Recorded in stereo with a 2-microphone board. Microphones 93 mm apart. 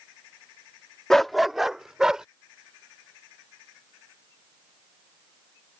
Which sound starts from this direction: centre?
A dog barking, at 1.1 s.